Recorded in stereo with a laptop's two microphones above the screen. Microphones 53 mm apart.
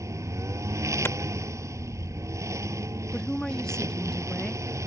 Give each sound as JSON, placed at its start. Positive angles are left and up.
{"t": 0.0, "sound": "a lawn mower", "side_deg": -70}
{"t": 1.1, "sound": "a clap", "side_deg": 50}
{"t": 3.1, "sound": "a woman speaking", "side_deg": 10}